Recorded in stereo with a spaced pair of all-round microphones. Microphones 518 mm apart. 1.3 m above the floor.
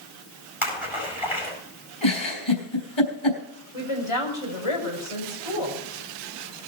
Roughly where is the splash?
Left.